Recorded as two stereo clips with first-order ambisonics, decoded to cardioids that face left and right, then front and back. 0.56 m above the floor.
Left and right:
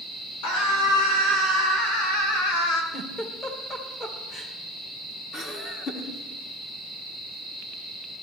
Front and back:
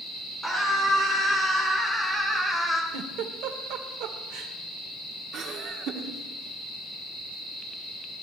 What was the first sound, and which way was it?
A scream, 95° left.